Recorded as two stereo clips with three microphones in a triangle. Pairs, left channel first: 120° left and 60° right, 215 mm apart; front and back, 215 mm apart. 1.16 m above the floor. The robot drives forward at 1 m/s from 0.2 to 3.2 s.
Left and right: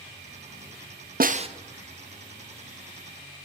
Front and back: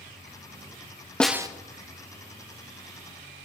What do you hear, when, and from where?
1.2 s a snare drum: 80° right, 0.6 m; by 1.5 s 120° right, 0.6 m